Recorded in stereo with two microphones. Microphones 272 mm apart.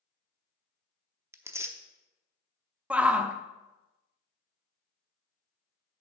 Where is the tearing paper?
10° right (ahead or behind), 0.7 m.